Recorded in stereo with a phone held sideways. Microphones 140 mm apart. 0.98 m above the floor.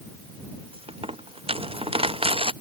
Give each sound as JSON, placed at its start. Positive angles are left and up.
{"t": 0.7, "sound": "a dropped coin", "side_deg": -45}